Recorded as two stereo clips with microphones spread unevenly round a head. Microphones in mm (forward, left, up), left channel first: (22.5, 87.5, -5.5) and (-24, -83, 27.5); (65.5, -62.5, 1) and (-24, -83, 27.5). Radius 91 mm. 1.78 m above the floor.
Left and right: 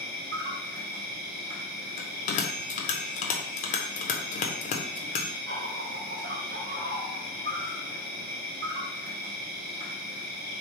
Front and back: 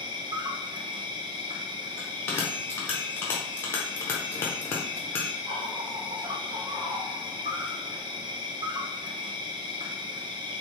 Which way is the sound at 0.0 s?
130° right.